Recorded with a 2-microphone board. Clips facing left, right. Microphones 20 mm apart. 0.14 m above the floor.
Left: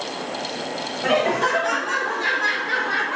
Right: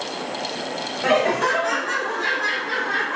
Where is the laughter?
20° right (ahead or behind), 1.2 m; by 3.2 s 25° left (ahead or behind), 1.3 m.